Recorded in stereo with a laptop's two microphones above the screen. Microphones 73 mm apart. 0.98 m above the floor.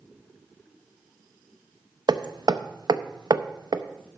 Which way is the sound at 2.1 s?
80° right.